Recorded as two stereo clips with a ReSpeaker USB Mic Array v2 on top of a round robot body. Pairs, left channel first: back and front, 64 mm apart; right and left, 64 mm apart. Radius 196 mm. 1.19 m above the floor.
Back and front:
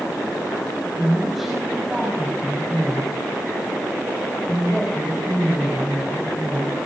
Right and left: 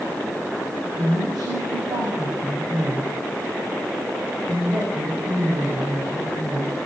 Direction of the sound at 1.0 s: 85° left.